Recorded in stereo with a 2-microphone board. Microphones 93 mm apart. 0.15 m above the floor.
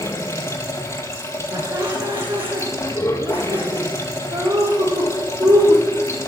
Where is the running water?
30° left (ahead or behind), 1.7 m.